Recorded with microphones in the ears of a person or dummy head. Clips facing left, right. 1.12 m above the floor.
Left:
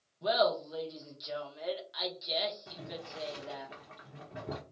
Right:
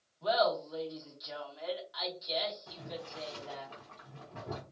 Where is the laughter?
30° left (ahead or behind), 1.0 m.